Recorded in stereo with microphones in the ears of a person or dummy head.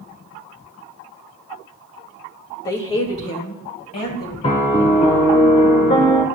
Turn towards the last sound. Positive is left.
turn(degrees=30)  # may be behind; listen again after turning